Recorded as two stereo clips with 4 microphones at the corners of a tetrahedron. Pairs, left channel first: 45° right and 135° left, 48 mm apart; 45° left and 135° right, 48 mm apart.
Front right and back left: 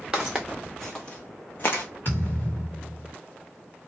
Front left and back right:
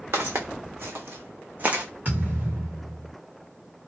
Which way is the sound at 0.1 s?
145° right.